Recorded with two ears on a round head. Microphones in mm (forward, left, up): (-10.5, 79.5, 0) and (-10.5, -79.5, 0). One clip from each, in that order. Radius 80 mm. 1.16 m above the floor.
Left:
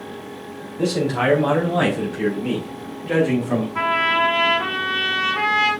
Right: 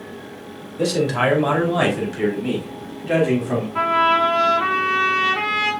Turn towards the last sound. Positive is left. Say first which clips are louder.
# right 2 dB
turn(degrees=-5)  # may be behind; listen again after turning